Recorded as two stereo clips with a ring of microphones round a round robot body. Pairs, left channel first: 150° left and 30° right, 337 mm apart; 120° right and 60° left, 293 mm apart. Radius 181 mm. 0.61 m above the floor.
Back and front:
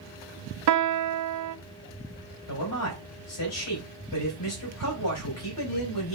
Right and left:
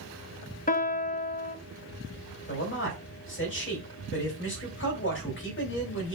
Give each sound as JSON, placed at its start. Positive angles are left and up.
{"t": 0.7, "sound": "a piano", "azimuth_deg": -60, "distance_m": 0.6}
{"t": 2.5, "sound": "a man speaking", "azimuth_deg": -170, "distance_m": 3.0}